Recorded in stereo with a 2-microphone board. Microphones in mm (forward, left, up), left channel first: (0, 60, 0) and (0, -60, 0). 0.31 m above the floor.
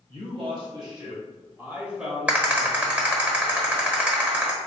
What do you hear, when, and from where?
0.1 s a man speaking: 50° right (ahead or behind), 1.5 m; by 3.0 s 15° left (ahead or behind), 1.1 m
2.3 s a rattle: 10° right (ahead or behind), 1.0 m